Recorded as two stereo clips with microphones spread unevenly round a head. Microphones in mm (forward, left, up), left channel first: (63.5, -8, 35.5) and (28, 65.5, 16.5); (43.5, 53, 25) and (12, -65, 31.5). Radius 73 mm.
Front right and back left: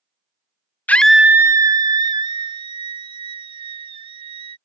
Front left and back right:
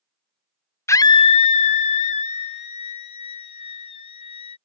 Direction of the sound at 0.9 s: 15° left.